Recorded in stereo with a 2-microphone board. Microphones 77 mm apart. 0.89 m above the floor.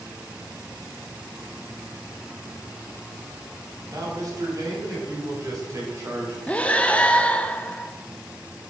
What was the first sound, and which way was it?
A man speaking, 50° right (ahead or behind).